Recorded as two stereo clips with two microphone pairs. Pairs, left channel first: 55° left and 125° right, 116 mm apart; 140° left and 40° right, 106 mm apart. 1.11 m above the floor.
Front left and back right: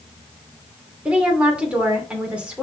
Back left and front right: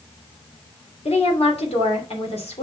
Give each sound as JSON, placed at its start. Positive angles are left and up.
{"t": 1.1, "sound": "a woman speaking", "azimuth_deg": 155, "distance_m": 2.5}